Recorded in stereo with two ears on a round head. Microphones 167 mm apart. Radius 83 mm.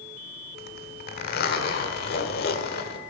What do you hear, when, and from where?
0.6 s a zipper: 55° left (ahead or behind), 1.3 m